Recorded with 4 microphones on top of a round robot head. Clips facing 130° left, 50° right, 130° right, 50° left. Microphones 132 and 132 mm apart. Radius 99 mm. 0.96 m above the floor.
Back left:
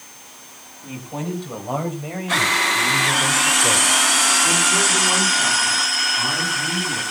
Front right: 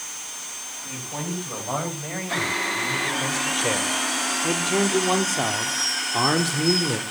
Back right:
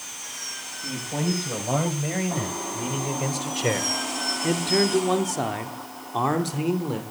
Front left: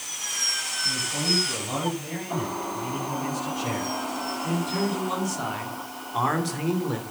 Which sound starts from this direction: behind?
A man speaking, at 0.8 s.